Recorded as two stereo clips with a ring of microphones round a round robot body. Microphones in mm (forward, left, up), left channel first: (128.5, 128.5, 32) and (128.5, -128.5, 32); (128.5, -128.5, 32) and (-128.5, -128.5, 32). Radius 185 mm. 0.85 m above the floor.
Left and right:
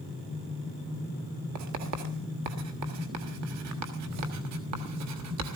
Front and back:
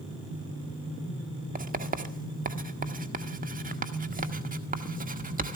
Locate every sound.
1.6 s writing: 120° right, 1.5 m